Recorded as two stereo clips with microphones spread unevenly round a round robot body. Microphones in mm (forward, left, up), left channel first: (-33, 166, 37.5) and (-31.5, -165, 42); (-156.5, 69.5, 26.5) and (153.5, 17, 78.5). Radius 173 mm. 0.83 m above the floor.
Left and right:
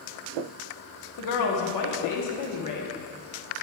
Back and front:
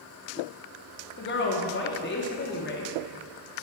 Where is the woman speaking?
120° left, 1.4 m.